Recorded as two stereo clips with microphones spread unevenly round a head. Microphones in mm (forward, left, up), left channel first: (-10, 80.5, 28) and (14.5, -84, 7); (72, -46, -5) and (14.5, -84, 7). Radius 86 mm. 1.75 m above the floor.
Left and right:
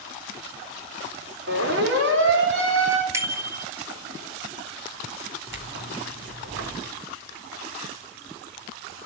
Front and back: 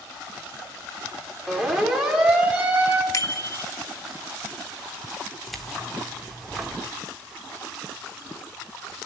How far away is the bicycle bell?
About 3 m.